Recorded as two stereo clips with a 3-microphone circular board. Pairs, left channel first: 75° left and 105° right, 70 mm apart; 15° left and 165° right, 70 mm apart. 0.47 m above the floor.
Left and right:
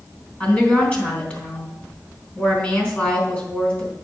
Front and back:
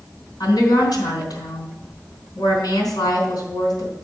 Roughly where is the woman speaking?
Ahead.